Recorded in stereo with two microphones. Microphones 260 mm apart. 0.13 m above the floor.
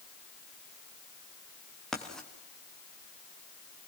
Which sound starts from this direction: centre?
Writing, at 1.9 s.